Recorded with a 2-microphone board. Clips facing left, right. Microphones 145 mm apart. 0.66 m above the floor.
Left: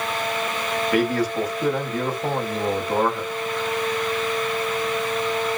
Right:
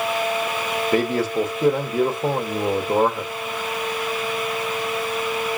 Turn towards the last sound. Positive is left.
turn(degrees=-25)  # may be behind; listen again after turning